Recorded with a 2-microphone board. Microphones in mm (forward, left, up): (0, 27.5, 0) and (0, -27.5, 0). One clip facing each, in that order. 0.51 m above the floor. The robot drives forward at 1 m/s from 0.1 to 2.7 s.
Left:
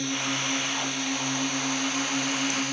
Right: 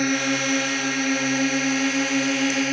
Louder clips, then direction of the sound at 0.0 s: Right 7 dB; 55° right (ahead or behind).